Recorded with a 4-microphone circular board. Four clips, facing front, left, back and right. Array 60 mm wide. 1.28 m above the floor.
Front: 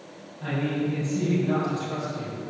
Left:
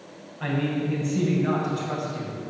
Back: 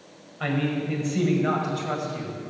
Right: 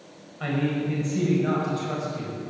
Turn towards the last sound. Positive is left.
turn(degrees=180)